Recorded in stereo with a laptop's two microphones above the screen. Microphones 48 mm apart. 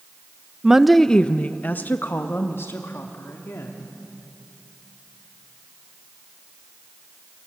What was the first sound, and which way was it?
A woman speaking, 15° right (ahead or behind).